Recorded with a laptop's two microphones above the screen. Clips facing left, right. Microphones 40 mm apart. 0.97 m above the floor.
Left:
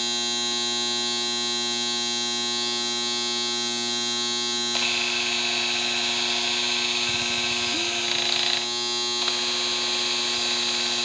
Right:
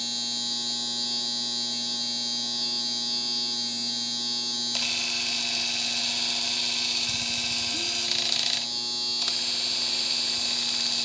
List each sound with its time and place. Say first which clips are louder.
0.0 s a machine running: left 6 dB; 50° left (ahead or behind), 0.9 m
4.7 s a camera shutter: left 5 dB; 25° left (ahead or behind), 0.5 m